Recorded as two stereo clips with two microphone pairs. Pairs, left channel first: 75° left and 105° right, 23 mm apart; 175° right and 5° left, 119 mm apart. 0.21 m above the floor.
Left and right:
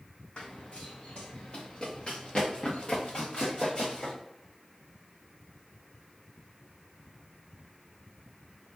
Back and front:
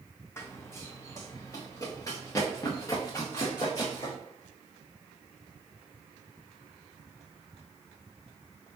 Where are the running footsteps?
115° left, 0.8 m; by 4.2 s 125° left, 3 m.